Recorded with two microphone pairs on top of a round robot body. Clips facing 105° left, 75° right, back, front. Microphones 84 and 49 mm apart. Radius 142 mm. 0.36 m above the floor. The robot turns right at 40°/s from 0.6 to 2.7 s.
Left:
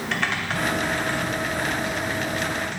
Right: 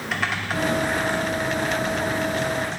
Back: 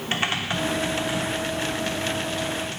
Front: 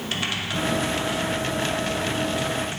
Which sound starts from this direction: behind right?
Typing on a keyboard, at 0.1 s.